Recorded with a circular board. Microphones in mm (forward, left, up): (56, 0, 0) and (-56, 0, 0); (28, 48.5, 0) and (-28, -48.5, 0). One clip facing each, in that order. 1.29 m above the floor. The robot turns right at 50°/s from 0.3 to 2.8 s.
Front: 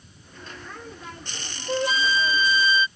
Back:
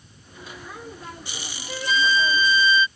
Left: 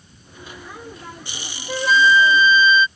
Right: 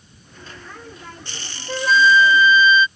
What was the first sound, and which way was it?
A flute, 30° right.